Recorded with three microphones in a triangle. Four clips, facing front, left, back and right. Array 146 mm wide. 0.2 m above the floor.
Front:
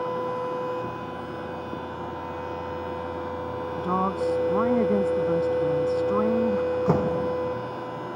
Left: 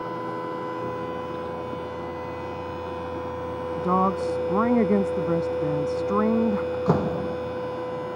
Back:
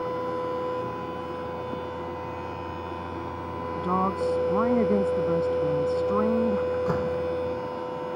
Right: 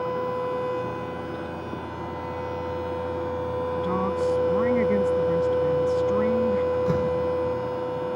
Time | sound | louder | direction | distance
3.8 | a woman speaking | left 5 dB, even | 90° left | ?
6.7 | a door slam | right 1 dB, front 3 dB | 50° left | ?